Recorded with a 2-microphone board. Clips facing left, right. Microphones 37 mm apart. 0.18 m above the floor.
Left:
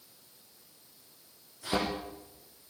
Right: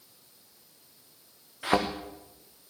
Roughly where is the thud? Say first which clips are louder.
Right 6 dB; right.